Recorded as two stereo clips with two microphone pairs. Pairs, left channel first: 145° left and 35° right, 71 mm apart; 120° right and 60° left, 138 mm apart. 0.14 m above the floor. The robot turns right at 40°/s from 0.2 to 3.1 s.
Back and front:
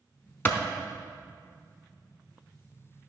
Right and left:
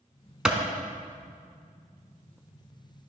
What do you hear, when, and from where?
0.5 s a clap: 135° left, 1.0 m; by 0.6 s 145° left, 1.0 m